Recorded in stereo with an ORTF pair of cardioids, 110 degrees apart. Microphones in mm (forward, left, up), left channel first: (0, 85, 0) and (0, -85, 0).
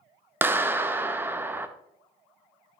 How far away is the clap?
About 0.7 m.